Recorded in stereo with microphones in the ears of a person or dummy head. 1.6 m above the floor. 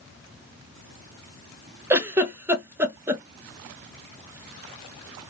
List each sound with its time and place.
1.9 s a giggle: 10° right (ahead or behind), 0.6 m